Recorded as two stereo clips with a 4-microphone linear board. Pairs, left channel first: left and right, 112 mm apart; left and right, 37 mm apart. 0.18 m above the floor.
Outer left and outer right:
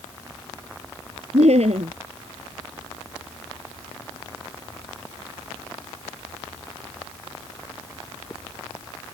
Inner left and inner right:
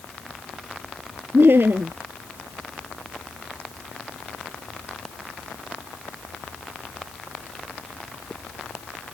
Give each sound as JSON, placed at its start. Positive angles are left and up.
{"t": 1.3, "sound": "laughter", "side_deg": -70}